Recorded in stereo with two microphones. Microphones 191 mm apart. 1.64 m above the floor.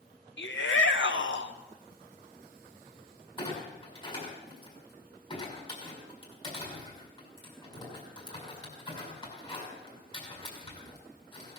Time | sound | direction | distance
0.4 | a shout | 75° left (ahead or behind) | 1.5 m
3.4 | a clunk | 30° left (ahead or behind) | 6 m